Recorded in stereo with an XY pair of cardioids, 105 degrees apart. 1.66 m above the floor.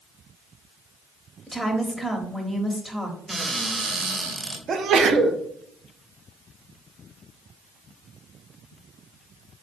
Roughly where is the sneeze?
Ahead right.